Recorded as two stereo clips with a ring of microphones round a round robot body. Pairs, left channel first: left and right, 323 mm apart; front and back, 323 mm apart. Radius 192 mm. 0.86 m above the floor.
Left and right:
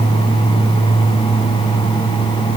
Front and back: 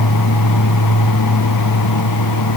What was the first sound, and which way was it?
Only background noise.